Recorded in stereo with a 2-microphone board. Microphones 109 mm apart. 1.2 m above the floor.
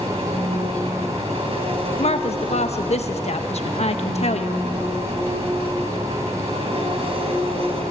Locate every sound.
0.0 s an engine running: 65° right (ahead or behind), 3 m
2.0 s a woman speaking: 80° left, 1.0 m